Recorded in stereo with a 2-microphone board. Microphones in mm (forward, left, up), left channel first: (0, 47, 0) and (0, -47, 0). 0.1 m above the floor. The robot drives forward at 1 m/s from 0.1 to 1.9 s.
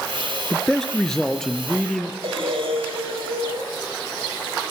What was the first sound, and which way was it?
A man speaking, 5° left (ahead or behind).